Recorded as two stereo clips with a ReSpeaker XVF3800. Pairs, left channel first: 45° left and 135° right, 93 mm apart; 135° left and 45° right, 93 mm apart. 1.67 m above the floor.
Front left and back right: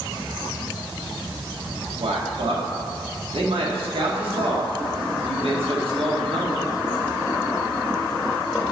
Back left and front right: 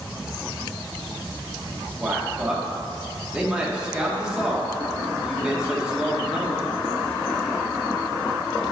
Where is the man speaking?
125° right, 2.5 m.